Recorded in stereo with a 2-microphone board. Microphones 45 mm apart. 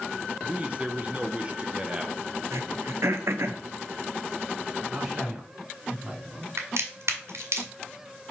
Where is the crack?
75° right (ahead or behind), 1.7 m.